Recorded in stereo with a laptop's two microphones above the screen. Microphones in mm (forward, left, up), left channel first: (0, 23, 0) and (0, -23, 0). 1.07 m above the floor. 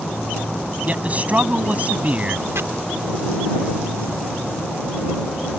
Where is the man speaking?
30° right (ahead or behind).